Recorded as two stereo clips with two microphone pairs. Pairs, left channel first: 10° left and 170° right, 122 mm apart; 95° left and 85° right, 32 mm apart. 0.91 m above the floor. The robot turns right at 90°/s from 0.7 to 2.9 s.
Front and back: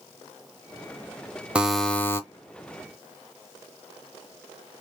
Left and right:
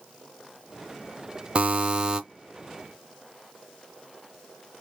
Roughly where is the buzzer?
Right.